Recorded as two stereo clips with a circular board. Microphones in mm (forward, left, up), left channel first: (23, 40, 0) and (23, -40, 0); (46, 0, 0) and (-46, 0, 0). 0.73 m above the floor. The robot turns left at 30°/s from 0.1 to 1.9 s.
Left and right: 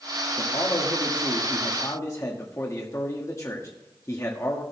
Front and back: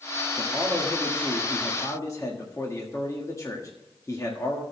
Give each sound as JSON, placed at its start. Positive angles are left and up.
{"t": 0.4, "sound": "a man speaking", "azimuth_deg": 90, "distance_m": 1.5}